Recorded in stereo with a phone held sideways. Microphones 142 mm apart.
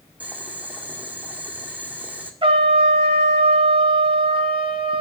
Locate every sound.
0.2 s boiling: 10° right (ahead or behind), 2.0 m
2.4 s a trumpet: 40° right (ahead or behind), 1.9 m